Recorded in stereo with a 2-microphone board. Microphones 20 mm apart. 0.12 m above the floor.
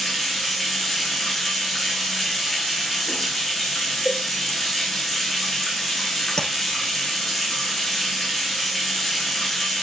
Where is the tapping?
30° left (ahead or behind), 2 m.